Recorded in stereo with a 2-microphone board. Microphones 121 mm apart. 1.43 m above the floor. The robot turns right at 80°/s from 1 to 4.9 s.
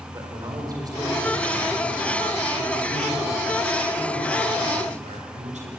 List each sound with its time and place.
0.1 s a man speaking: 35° right, 5 m; by 5.7 s 80° right, 5 m